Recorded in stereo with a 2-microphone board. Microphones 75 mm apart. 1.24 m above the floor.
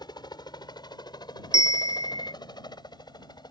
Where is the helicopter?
65° left (ahead or behind).